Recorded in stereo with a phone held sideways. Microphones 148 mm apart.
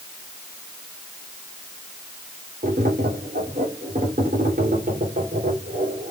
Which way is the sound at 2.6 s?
70° right (ahead or behind).